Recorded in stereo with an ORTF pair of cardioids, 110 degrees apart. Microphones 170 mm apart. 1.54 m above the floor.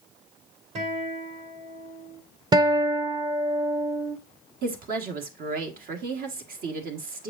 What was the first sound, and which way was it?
A guitar, 40° right.